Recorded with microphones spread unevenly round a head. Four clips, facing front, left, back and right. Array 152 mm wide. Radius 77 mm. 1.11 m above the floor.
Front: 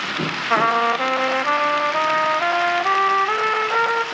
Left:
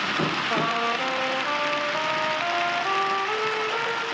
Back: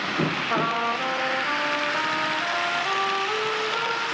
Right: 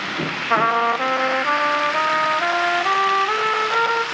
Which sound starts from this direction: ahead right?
A trumpet, at 0.5 s.